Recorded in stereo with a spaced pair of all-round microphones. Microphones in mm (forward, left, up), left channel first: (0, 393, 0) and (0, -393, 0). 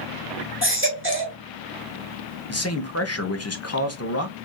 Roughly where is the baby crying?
Centre.